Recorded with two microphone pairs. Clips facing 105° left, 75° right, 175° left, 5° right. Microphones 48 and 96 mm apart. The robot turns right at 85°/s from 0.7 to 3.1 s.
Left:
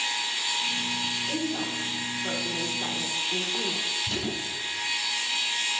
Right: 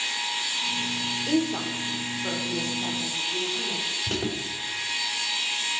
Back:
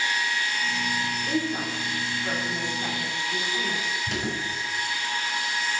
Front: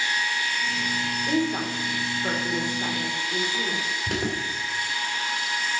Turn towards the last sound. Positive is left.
turn(degrees=-35)